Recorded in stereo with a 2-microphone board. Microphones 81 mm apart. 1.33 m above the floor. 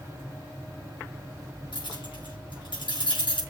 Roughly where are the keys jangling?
Left.